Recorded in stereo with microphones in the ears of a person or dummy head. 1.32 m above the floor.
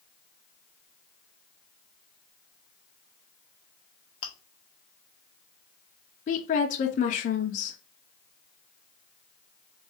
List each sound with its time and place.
4.2 s chewing: 35° left (ahead or behind), 0.8 m
6.3 s a woman speaking: 35° left (ahead or behind), 0.5 m